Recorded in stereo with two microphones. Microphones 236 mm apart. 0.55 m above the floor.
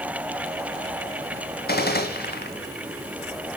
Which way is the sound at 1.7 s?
40° left (ahead or behind).